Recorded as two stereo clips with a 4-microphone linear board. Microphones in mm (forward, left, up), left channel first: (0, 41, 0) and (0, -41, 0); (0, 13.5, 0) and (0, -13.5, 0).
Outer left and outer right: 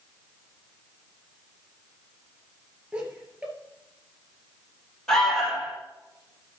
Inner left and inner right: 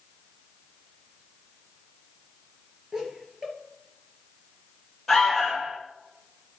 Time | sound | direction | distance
2.9 | laughter | 15° right (ahead or behind) | 3.5 m
5.1 | an alarm | 5° left (ahead or behind) | 5.5 m